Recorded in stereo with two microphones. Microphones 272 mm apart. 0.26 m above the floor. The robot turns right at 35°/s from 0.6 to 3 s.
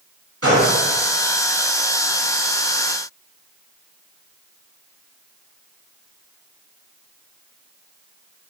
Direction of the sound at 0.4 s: 60° right (ahead or behind).